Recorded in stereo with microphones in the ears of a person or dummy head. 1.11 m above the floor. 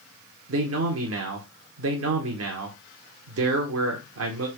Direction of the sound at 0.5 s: 70° right (ahead or behind).